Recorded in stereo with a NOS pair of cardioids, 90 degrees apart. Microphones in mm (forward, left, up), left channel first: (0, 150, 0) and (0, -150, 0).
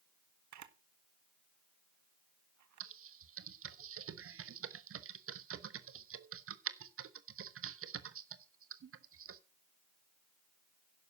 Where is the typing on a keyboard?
45° right, 1.2 m.